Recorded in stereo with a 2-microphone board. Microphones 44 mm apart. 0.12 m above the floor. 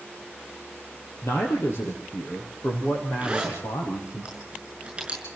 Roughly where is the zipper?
Right.